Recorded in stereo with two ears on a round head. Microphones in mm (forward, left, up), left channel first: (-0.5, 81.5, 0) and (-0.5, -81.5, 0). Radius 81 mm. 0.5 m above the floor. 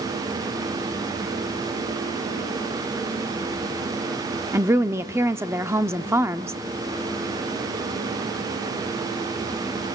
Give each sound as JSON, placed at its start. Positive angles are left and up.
{"t": 4.5, "sound": "a woman speaking", "side_deg": -15, "distance_m": 0.7}